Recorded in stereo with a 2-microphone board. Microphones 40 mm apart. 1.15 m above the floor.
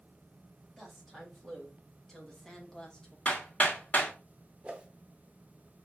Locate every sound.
0.8 s a woman speaking: centre (ahead or behind), 2.5 m; by 3.1 s 20° left (ahead or behind), 1.4 m
3.2 s hammering: 35° left (ahead or behind), 1.8 m
4.6 s a whoosh: 30° right (ahead or behind), 0.9 m